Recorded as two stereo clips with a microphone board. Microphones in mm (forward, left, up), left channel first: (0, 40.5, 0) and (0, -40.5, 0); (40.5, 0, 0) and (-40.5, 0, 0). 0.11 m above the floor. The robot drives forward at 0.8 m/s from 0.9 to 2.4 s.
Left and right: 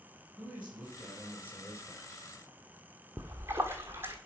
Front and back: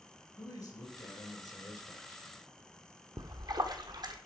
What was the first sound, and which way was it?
A man speaking, 20° right.